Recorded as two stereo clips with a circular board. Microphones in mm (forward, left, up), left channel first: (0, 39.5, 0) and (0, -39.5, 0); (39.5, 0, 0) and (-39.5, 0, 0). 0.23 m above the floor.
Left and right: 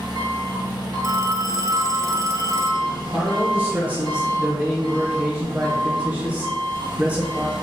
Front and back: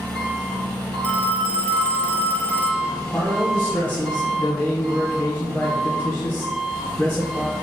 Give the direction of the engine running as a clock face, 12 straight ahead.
3 o'clock.